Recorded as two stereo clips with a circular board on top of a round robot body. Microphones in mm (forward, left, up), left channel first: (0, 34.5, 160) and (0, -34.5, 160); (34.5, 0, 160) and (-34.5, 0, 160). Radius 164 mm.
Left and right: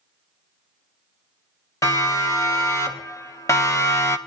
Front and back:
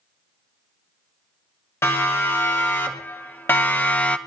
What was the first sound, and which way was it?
A siren, 50° left.